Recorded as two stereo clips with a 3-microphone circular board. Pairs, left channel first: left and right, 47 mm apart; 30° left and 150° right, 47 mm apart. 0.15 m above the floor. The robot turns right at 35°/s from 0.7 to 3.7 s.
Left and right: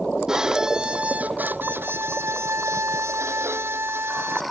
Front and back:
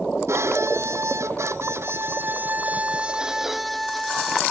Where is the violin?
165° right; by 4.4 s 60° right.